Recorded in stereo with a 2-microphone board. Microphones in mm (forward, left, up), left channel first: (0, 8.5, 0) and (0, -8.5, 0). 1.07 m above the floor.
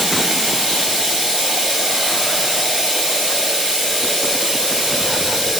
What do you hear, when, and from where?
0.0 s running water: 80° right, 5 m